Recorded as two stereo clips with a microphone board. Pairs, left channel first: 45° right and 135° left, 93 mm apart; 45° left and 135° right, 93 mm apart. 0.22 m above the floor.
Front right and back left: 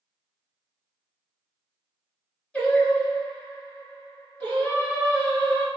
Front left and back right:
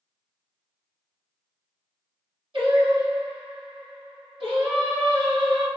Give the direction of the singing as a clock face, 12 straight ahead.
4 o'clock.